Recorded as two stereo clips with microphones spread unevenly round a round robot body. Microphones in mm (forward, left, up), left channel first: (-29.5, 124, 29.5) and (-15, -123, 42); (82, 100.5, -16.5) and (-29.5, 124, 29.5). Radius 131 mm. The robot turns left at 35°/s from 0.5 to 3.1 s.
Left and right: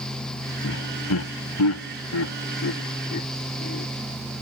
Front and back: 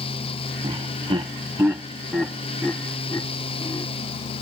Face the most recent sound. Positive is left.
turn(degrees=40)